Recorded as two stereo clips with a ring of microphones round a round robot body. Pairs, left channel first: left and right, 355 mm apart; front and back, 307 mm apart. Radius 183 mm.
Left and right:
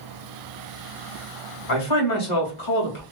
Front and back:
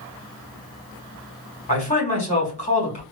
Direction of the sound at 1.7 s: 65° left.